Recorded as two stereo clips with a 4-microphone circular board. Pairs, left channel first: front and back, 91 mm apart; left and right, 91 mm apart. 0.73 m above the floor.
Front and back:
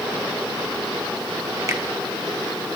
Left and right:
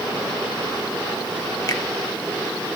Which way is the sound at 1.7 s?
130° left.